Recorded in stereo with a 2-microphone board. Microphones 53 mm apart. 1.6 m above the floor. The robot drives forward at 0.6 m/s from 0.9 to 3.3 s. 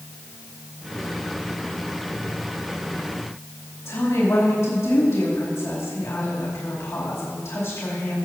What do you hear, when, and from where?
3.9 s a woman speaking: 60° left (ahead or behind), 4 m